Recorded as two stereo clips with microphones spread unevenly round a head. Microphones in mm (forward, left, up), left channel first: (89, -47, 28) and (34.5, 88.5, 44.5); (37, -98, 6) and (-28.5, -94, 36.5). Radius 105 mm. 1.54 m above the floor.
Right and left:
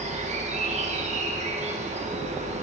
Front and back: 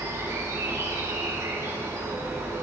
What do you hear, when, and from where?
0.0 s an insect: 105° left, 1.0 m